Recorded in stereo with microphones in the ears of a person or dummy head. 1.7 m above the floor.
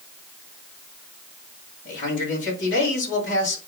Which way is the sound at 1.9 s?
70° left (ahead or behind).